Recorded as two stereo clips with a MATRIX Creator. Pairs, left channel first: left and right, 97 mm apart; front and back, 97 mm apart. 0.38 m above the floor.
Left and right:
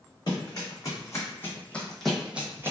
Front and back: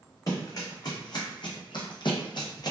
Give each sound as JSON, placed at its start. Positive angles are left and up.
{"t": 0.3, "sound": "running footsteps", "azimuth_deg": 50, "distance_m": 1.3}